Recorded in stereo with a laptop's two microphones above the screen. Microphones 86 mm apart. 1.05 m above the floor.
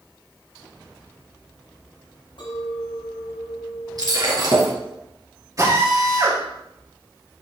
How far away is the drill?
About 6 m.